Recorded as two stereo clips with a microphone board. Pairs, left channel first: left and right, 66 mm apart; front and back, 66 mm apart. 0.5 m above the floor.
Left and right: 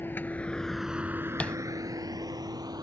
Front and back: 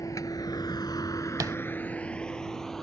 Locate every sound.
0.0 s a vehicle: 35° left; by 2.8 s 85° right
1.4 s tapping: 160° left